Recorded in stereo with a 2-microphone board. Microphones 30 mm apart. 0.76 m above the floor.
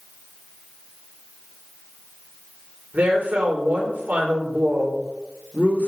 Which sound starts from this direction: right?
A woman speaking, at 2.9 s.